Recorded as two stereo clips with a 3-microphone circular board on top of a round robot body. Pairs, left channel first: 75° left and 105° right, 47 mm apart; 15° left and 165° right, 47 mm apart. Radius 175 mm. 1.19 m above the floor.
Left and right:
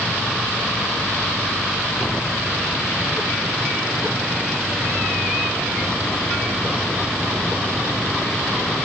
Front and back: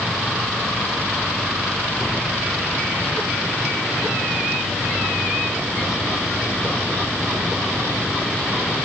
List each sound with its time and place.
Only background noise.